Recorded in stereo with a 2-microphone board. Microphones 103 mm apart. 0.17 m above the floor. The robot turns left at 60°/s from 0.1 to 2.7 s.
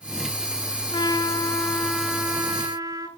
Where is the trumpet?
60° left, 0.6 m; by 3.1 s 45° right, 0.6 m.